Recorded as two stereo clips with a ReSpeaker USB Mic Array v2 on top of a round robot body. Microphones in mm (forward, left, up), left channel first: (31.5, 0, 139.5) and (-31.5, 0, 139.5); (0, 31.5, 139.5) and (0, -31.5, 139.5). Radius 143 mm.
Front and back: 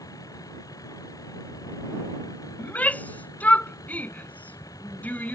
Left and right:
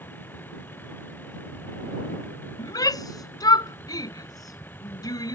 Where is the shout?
65° left.